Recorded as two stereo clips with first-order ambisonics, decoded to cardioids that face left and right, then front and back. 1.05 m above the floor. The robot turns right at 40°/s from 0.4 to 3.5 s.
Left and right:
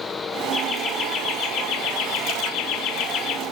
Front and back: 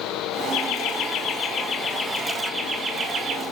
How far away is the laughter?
About 1.5 m.